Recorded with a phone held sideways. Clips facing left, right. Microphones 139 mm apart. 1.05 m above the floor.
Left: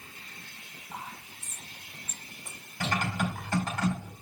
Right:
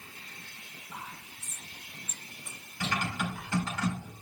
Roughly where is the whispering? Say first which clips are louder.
Left 3 dB; left.